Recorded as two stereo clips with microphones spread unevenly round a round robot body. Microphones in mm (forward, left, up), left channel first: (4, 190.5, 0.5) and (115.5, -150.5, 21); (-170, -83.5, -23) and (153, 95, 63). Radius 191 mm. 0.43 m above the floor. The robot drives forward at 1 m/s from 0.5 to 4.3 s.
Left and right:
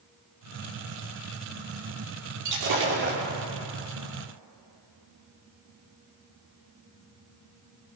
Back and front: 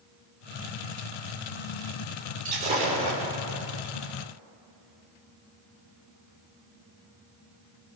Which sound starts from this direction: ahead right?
Breaking glass, at 2.5 s.